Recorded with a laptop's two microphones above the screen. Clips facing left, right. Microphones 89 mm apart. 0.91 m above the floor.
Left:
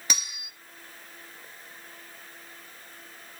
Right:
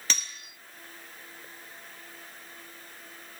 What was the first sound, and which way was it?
Cutlery clinking, 15° left (ahead or behind).